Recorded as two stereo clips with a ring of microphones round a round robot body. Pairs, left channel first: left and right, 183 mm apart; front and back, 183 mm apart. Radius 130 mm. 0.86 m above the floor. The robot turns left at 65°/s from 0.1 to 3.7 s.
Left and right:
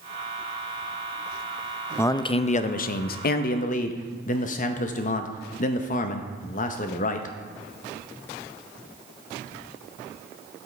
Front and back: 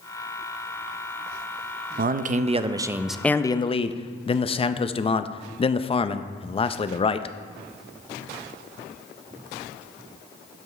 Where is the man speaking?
165° left, 0.5 m; by 7.3 s 55° left, 0.5 m.